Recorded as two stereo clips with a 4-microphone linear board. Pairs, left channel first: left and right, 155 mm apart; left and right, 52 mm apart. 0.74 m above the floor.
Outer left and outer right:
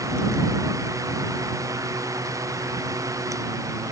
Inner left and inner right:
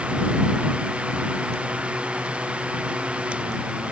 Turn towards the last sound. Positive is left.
No sound to turn to.